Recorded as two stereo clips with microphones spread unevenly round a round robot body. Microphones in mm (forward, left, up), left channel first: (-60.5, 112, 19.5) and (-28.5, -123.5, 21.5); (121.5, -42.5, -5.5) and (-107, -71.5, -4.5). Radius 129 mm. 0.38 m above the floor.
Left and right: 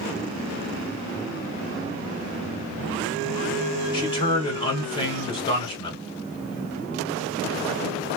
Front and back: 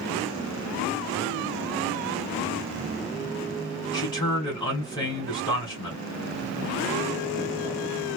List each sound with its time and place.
3.9 s a man speaking: 55° left, 1.4 m